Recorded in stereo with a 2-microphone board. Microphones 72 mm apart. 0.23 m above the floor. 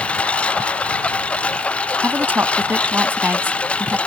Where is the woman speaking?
25° right (ahead or behind).